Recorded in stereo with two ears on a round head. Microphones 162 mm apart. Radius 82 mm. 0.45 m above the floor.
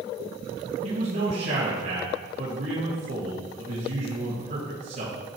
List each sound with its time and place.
0.8 s a man speaking: 55° right (ahead or behind), 3.5 m